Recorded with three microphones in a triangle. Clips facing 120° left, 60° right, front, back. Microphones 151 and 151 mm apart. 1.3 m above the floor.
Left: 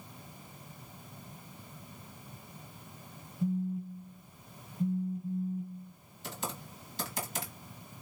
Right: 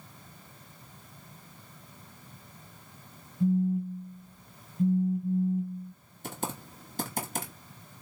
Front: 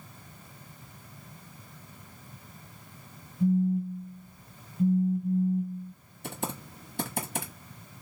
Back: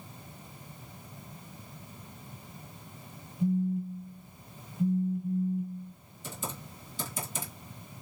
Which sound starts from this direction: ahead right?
A phone buzzing, at 3.4 s.